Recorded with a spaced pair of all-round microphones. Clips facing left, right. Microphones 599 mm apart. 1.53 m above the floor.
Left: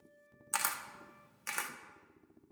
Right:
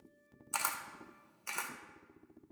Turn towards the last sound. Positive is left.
turn(degrees=45)  # may be behind; listen again after turning